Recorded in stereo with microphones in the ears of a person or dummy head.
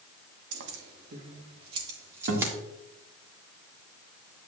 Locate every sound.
0.5 s keys jangling: 70° right (ahead or behind), 1.0 m; by 2.5 s 15° right (ahead or behind), 1.7 m
2.3 s a guitar: 65° right (ahead or behind), 1.6 m